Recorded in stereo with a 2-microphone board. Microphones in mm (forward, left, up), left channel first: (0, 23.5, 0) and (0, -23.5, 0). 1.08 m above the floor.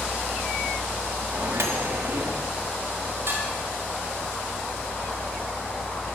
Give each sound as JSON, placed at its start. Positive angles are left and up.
{"t": 1.3, "sound": "a microwave", "side_deg": -85, "distance_m": 1.5}
{"t": 3.3, "sound": "dishes clattering", "side_deg": -65, "distance_m": 4.0}